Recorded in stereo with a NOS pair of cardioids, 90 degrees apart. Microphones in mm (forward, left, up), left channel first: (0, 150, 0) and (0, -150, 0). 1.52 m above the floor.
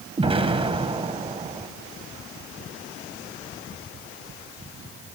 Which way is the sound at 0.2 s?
20° right.